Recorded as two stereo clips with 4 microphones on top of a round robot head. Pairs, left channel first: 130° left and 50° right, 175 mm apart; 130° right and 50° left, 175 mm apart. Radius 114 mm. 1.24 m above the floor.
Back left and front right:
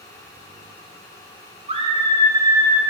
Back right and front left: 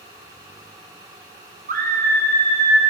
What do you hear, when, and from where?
1.7 s a scream: 5° left, 2 m; by 2.8 s 30° left, 2.5 m